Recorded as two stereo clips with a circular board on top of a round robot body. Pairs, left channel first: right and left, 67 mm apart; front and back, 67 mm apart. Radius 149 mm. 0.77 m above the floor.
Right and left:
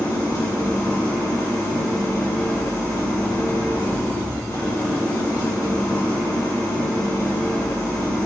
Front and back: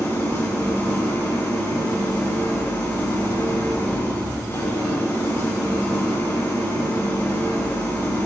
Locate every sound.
0.0 s an engine running: 55° right, 6 m